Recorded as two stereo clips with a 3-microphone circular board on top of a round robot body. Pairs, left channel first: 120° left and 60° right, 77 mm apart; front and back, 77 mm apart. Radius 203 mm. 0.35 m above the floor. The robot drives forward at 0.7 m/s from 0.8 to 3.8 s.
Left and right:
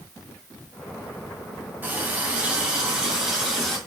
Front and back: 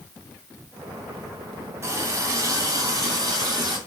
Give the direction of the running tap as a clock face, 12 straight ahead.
4 o'clock.